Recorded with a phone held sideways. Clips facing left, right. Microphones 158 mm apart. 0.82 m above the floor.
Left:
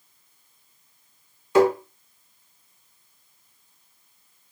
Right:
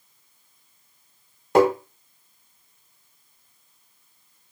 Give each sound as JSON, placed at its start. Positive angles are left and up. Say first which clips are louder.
{"t": 1.6, "sound": "tapping", "louder": "even", "side_deg": -60, "distance_m": 1.1}